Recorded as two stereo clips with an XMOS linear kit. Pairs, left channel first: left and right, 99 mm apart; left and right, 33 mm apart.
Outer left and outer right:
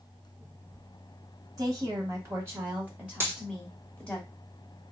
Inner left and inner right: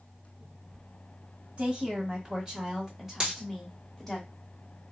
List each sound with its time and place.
1.6 s a woman speaking: 40° right (ahead or behind), 1.6 m; by 4.2 s 10° left (ahead or behind), 1.6 m
3.2 s a dropped coin: 25° right (ahead or behind), 1.5 m